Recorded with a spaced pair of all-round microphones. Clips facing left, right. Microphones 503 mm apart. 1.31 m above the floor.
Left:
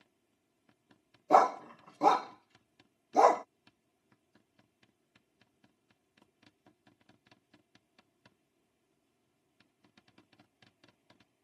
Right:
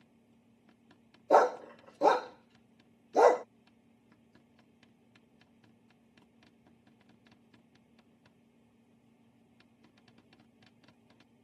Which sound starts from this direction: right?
A fan, at 0.0 s.